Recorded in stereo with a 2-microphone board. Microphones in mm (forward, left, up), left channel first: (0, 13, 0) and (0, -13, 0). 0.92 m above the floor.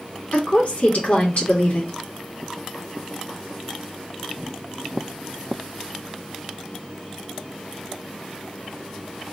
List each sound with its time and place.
0.3 s a woman speaking: 70° left (ahead or behind), 1.6 m